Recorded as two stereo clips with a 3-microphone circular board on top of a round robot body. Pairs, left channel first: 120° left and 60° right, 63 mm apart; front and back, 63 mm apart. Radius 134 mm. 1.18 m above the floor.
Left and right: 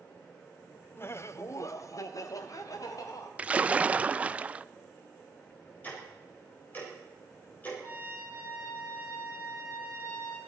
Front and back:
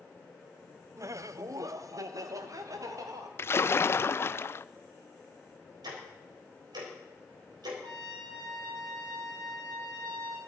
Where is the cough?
I don't hear a cough.